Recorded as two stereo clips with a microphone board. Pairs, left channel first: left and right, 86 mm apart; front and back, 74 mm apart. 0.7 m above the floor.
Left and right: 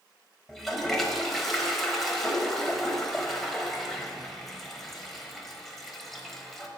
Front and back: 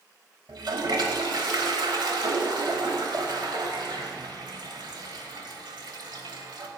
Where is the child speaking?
I don't hear a child speaking.